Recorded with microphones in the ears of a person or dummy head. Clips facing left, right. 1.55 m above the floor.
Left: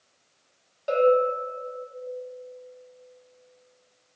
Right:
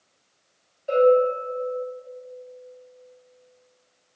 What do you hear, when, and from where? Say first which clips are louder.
0.9 s a bell: right 3 dB; 70° left (ahead or behind), 2 m